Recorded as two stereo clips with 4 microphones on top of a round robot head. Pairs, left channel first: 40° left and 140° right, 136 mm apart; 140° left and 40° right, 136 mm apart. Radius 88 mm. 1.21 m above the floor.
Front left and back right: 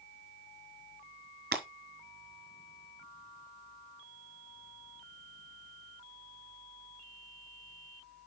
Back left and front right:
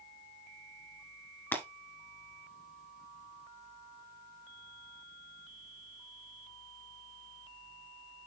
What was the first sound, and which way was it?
Breaking glass, 145° right.